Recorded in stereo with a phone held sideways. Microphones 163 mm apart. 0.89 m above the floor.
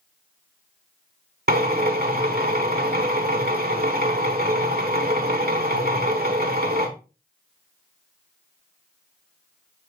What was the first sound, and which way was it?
A drill, 70° right (ahead or behind).